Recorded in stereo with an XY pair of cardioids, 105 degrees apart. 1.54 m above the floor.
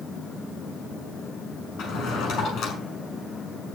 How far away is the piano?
I don't hear a piano.